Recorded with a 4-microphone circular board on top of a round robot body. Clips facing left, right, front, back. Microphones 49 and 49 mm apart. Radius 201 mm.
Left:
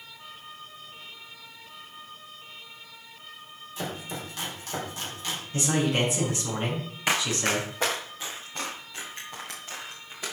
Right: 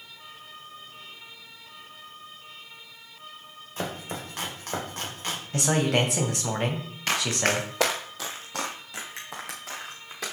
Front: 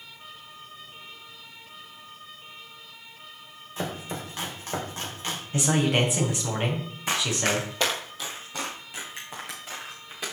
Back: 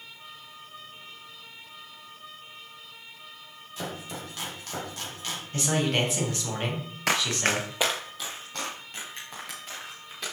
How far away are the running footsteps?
About 0.6 m.